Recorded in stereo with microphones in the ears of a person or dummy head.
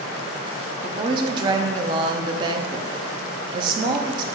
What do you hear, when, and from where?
0.8 s a woman speaking: 25° right (ahead or behind), 0.5 m